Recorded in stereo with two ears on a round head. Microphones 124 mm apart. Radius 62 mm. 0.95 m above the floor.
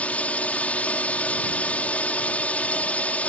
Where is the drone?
10° left (ahead or behind).